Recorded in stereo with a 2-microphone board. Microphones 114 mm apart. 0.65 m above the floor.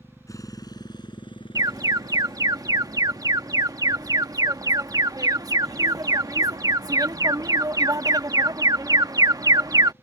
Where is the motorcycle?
25° left (ahead or behind); by 10.0 s 80° left.